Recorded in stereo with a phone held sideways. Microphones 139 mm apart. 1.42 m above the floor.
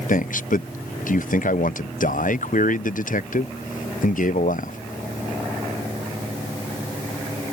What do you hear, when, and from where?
0.1 s a man speaking: 75° left (ahead or behind)